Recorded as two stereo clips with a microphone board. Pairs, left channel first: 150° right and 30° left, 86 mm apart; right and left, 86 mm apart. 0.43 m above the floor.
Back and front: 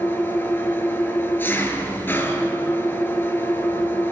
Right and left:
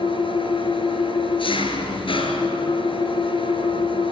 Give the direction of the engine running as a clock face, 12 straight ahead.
3 o'clock.